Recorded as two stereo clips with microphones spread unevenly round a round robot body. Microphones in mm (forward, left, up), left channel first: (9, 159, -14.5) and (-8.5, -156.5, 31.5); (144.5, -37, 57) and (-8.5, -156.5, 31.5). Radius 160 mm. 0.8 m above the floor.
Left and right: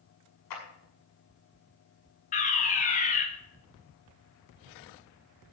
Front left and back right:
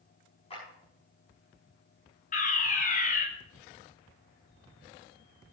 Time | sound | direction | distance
0.5 | a clap | 110° left | 6.5 m
2.3 | a fire alarm | 55° left | 1.9 m